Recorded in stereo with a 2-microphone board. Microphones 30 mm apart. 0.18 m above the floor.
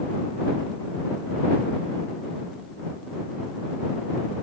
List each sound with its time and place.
Only background noise.